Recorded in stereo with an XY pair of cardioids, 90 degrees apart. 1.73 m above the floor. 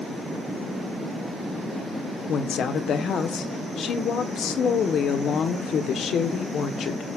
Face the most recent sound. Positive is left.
turn(degrees=65)